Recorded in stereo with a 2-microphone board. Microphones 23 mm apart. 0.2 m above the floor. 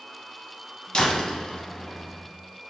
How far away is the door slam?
About 0.9 m.